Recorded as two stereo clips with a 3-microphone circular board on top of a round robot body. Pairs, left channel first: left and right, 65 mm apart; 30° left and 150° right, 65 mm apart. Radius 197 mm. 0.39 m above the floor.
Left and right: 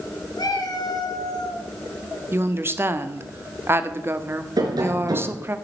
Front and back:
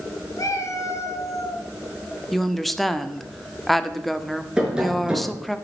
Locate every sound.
0.4 s a cat meowing: 70° left, 3 m
2.3 s a woman speaking: 60° right, 1.8 m
4.6 s tapping: 70° right, 3.5 m